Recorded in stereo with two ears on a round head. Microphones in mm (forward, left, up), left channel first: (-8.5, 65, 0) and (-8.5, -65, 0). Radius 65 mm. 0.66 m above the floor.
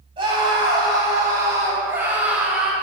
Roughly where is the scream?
Right.